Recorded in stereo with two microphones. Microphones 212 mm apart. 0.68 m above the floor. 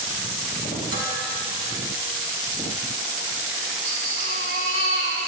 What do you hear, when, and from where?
0.9 s dishes clattering: 65° left (ahead or behind), 4 m
3.8 s a baby crying: 80° right, 4 m